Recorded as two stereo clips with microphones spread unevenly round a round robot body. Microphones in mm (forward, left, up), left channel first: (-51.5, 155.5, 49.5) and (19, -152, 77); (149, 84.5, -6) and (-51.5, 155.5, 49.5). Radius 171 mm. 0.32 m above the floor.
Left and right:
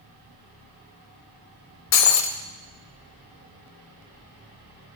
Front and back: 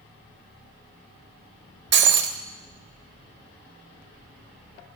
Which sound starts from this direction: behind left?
Breaking glass, at 1.9 s.